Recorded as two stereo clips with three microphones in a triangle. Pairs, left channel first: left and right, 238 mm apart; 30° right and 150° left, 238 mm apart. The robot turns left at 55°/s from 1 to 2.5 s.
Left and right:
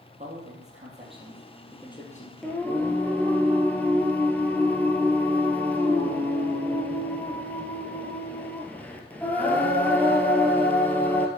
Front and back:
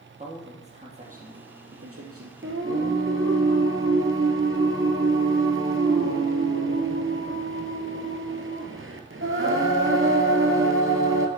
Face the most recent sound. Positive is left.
turn(degrees=170)